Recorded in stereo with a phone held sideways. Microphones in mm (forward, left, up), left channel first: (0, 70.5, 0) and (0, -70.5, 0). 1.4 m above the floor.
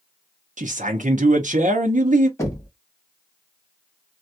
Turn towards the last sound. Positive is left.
turn(degrees=20)  # may be behind; listen again after turning